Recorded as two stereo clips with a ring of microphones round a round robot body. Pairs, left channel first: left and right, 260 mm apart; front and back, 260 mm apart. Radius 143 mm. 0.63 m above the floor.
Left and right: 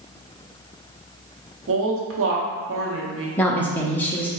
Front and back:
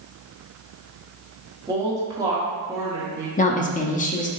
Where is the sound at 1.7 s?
105° right, 1.1 m.